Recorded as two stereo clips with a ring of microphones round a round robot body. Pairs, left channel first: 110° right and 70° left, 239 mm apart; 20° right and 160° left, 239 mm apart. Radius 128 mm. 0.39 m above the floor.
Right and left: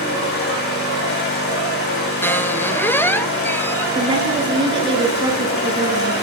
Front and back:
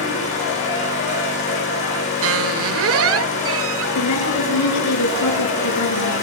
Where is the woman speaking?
5° right, 5.5 m.